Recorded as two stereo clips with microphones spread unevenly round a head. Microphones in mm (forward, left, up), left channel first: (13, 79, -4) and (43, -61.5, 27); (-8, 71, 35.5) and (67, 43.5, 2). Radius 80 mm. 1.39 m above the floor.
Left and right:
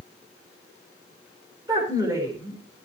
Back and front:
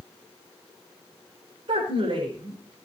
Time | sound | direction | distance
1.7 | a woman speaking | 10° right | 5 m